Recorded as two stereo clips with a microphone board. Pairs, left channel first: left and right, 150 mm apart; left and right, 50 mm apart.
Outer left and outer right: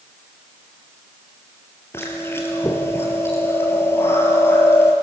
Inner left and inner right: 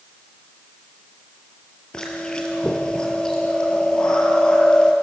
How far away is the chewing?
About 4 m.